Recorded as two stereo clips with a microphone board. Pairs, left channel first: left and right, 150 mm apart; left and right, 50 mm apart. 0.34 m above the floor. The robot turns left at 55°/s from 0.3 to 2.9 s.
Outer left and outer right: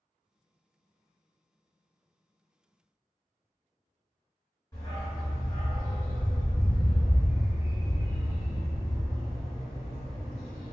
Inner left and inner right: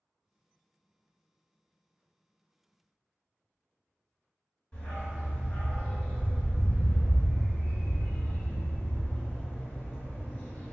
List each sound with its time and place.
4.7 s a dog barking: 25° left (ahead or behind), 1.3 m